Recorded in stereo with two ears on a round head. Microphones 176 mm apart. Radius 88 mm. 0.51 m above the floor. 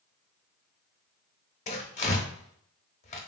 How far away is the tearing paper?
About 0.6 m.